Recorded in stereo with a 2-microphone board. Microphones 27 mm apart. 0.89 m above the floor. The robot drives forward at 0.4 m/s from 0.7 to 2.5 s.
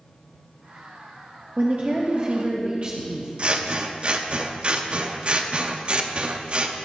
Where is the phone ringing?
I don't hear a phone ringing.